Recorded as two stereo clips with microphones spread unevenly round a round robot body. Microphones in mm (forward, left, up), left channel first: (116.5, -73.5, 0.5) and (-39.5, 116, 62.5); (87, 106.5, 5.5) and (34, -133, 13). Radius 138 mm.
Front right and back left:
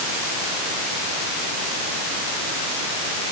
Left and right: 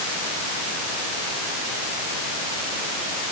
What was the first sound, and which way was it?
Only background noise.